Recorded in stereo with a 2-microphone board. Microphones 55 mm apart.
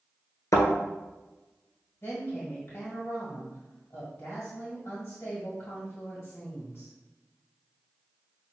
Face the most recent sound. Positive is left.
turn(degrees=55)  # may be behind; listen again after turning